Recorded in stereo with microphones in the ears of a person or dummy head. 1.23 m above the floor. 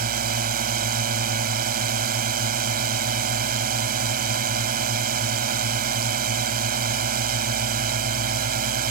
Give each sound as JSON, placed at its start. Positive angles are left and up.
{"t": 0.0, "sound": "a drone", "side_deg": -45}